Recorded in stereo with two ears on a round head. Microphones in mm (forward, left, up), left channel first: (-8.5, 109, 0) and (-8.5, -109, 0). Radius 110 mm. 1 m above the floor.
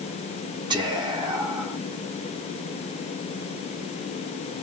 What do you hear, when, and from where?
0.7 s whispering: 20° right (ahead or behind), 1.0 m